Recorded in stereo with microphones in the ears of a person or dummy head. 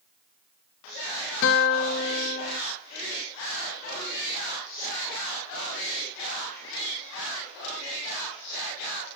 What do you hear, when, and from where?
1.4 s a guitar: 70° left (ahead or behind), 0.8 m